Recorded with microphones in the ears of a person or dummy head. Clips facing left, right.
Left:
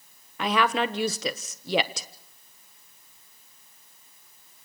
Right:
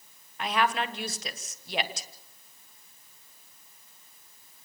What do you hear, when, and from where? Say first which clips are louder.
0.4 s a woman speaking: left 4 dB; 60° left (ahead or behind), 1.2 m